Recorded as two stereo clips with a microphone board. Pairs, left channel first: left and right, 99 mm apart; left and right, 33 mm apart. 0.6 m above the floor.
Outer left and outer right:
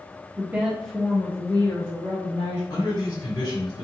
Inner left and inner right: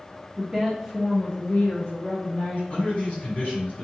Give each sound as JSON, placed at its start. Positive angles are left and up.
{"t": 0.4, "sound": "a woman speaking", "side_deg": -20, "distance_m": 0.8}
{"t": 2.7, "sound": "a man speaking", "side_deg": 45, "distance_m": 2.0}